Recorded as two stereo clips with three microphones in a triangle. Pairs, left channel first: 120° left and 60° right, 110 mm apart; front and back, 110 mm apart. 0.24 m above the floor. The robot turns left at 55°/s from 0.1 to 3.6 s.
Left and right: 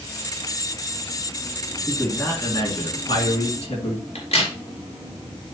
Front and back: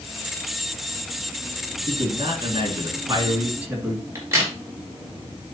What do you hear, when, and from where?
1.9 s a man speaking: 160° right, 3 m; by 4.0 s 105° left, 3 m
4.2 s a crack: 115° left, 3.5 m